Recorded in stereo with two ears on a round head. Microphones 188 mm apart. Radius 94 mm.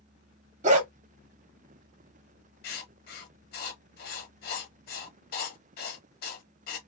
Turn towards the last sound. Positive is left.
turn(degrees=45)  # may be behind; listen again after turning